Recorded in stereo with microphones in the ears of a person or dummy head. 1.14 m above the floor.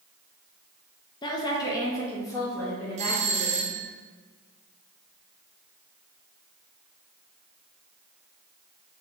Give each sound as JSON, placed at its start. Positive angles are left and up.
{"t": 1.2, "sound": "a woman speaking", "side_deg": 25, "distance_m": 0.8}
{"t": 3.0, "sound": "a doorbell", "side_deg": -35, "distance_m": 0.9}